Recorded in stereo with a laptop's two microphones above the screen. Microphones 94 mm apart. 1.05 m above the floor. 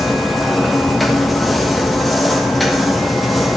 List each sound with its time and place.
0.0 s a machine running: centre (ahead or behind), 1.4 m